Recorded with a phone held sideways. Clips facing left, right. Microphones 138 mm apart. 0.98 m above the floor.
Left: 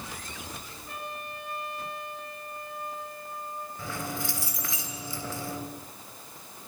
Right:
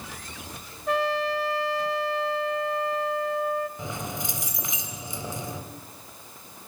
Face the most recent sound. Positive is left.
turn(degrees=-20)  # may be behind; listen again after turning